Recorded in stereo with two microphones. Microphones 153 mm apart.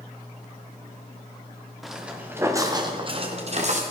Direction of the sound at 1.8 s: Centre (ahead or behind).